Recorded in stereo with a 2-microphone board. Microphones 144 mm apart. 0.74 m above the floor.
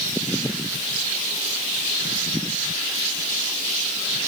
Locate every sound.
Only background noise.